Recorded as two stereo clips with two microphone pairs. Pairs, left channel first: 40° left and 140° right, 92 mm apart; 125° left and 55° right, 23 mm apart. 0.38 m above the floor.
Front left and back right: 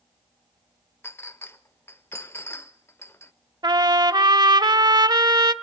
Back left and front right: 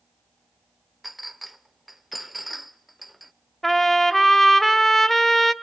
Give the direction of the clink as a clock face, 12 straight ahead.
11 o'clock.